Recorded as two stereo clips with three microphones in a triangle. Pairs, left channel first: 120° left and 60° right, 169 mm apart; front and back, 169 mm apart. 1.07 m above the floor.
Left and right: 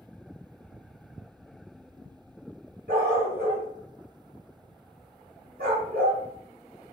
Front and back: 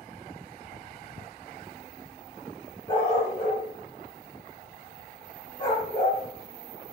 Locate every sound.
2.9 s a dog barking: 55° right, 1.7 m